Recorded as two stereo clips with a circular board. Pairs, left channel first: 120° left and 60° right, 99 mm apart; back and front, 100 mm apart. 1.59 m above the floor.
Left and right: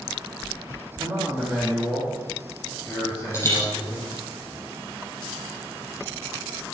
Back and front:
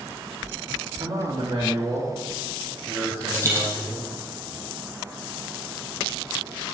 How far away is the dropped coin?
About 5.5 m.